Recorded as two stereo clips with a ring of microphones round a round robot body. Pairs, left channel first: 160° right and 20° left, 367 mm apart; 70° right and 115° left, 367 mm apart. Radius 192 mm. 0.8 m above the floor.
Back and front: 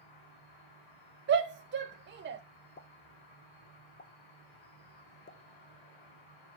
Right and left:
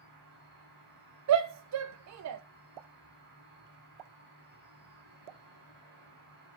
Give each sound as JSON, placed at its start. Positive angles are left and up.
{"t": 0.0, "sound": "an insect", "azimuth_deg": 175, "distance_m": 7.5}
{"t": 1.3, "sound": "a shout", "azimuth_deg": 80, "distance_m": 0.6}
{"t": 2.8, "sound": "a pop", "azimuth_deg": 135, "distance_m": 0.7}